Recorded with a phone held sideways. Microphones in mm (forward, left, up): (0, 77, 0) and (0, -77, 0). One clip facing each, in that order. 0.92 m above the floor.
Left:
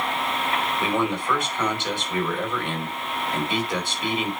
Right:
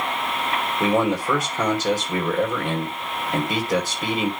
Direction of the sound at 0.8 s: 40° right (ahead or behind).